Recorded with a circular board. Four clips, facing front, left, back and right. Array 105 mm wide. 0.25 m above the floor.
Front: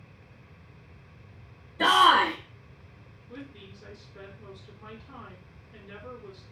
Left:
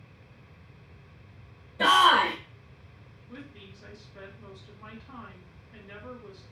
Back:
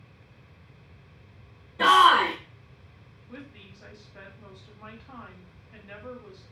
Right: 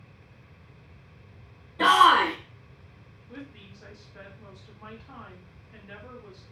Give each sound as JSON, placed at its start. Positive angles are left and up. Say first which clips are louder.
{"t": 1.8, "sound": "a shout", "louder": "right 2 dB, back 2 dB", "azimuth_deg": -140, "distance_m": 1.9}
{"t": 3.3, "sound": "a woman speaking", "louder": "right 2 dB, front 1 dB", "azimuth_deg": -155, "distance_m": 1.6}